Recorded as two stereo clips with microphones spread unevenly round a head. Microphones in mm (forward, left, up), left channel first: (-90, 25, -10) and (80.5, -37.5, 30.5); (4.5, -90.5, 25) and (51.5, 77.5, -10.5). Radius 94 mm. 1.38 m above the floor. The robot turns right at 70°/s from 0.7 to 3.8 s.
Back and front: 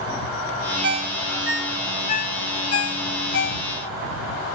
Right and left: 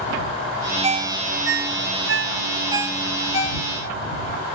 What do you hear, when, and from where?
0.8 s a ringtone: 15° left; by 4.5 s 135° right